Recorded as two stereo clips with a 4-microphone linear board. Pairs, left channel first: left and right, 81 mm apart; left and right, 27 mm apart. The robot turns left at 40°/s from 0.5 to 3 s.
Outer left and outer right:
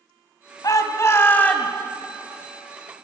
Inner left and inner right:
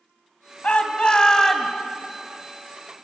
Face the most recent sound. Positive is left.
turn(degrees=-40)